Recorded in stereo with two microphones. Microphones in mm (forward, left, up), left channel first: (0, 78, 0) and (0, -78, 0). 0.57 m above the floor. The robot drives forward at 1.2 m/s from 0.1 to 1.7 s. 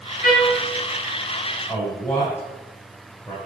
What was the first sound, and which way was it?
A trumpet, 75° left (ahead or behind).